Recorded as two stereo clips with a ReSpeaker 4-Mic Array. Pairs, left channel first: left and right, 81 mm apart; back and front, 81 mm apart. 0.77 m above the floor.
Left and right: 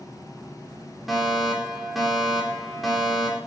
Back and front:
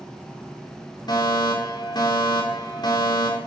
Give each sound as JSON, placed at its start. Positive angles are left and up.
{"t": 1.1, "sound": "a fire alarm", "azimuth_deg": -175, "distance_m": 4.0}